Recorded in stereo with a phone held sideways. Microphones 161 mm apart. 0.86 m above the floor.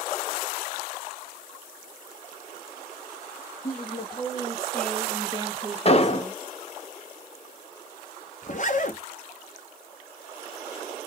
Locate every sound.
3.6 s a woman speaking: 55° left (ahead or behind), 1.4 m; by 6.5 s 60° right (ahead or behind), 1.6 m
5.8 s an explosion: 40° left (ahead or behind), 0.7 m
8.4 s a zipper: 50° left (ahead or behind), 0.8 m